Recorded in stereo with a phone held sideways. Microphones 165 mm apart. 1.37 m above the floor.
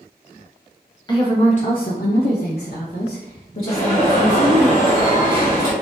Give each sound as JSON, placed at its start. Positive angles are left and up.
{"t": 1.1, "sound": "a woman speaking", "side_deg": 25, "distance_m": 0.7}
{"t": 3.7, "sound": "an alarm", "side_deg": 15, "distance_m": 1.9}